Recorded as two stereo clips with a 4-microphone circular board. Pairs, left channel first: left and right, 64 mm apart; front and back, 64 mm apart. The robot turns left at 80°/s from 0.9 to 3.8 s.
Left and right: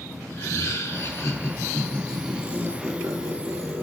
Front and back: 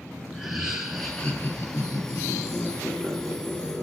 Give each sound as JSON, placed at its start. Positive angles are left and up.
{"t": 0.3, "sound": "laughter", "azimuth_deg": 95, "distance_m": 2.0}